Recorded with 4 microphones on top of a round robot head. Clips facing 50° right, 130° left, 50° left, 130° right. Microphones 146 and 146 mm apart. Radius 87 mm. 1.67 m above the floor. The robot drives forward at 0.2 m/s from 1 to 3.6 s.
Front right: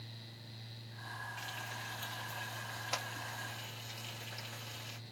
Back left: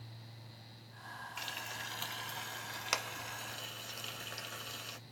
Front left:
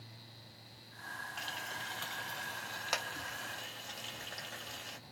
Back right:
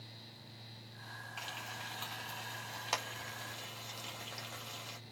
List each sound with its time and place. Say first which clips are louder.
1.4 s frying: even, front left 1 dB; 140° left, 1.0 m; by 5.0 s 150° left, 1.4 m